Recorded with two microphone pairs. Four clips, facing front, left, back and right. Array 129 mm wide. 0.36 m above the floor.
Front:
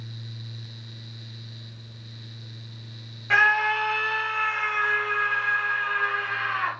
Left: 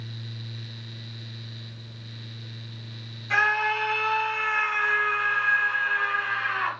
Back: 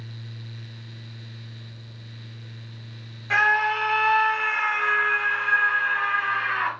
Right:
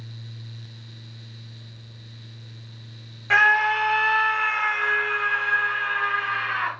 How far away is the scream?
About 1.3 m.